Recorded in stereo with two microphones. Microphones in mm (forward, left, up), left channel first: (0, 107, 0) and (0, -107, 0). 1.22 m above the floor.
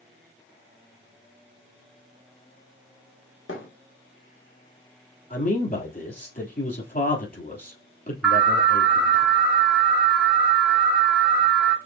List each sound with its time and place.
3.5 s a thud: 75° left (ahead or behind), 1.8 m
5.3 s a man speaking: 45° left (ahead or behind), 3 m
8.2 s an alarm: 5° right (ahead or behind), 1.0 m